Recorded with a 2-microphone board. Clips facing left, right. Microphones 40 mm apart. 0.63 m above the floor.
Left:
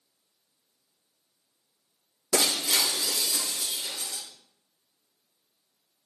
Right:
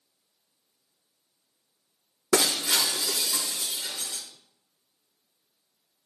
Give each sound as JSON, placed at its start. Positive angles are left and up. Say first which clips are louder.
{"t": 2.3, "sound": "breaking glass", "louder": "right 2 dB", "side_deg": -75, "distance_m": 4.0}